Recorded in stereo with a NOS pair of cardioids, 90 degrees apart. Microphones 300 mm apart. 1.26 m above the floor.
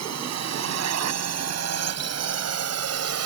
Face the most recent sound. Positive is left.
turn(degrees=-55)